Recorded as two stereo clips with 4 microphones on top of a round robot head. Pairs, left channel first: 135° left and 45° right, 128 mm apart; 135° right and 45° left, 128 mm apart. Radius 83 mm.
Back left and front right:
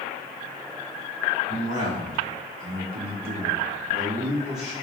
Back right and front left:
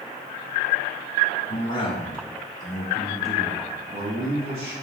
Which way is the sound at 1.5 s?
85° right.